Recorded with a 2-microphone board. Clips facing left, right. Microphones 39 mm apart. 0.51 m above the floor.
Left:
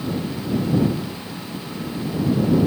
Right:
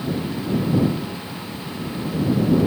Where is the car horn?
No car horn in this recording.